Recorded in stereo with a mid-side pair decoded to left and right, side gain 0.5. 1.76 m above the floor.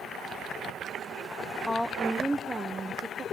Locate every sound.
1.7 s a woman speaking: 10° left, 1.0 m; by 3.2 s 45° right, 1.5 m